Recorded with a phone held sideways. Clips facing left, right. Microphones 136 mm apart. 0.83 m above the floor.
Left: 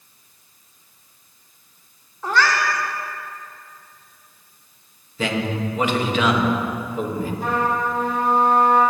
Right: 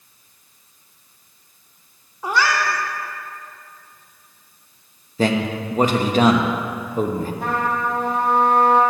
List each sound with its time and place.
2.2 s a cat meowing: 10° right (ahead or behind), 0.9 m
5.2 s a man speaking: 40° right (ahead or behind), 0.8 m
7.4 s a trumpet: 65° right (ahead or behind), 1.8 m